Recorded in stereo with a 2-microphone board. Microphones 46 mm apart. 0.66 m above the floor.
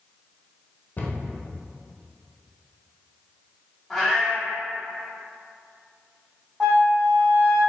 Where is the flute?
Centre (ahead or behind), 1.3 m.